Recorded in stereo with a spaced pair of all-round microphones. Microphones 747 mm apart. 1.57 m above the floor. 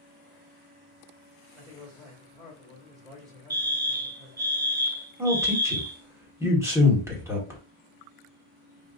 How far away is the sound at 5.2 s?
About 1.4 m.